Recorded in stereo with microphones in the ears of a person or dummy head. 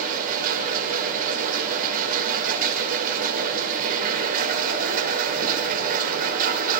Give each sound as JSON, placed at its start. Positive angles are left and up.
{"t": 0.0, "sound": "a machine running", "side_deg": -50, "distance_m": 5.0}